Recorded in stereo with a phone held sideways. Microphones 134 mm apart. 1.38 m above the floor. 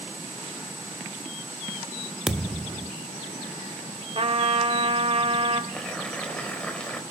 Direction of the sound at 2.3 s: 5° right (ahead or behind).